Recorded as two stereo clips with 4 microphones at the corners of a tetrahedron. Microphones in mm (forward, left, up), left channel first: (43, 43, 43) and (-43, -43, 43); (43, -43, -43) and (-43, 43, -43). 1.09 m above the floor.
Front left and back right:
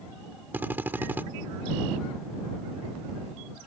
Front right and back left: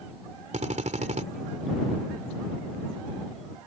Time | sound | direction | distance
0.5 | a drill | 150° left | ?